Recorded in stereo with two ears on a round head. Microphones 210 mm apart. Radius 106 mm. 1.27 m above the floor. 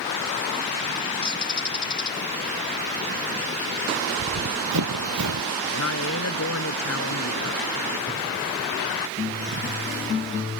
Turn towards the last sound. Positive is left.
turn(degrees=65)  # may be behind; listen again after turning